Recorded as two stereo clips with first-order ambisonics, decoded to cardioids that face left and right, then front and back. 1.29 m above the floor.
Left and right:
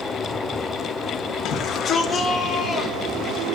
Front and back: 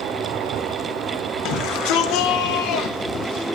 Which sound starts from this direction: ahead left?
A shout, at 1.4 s.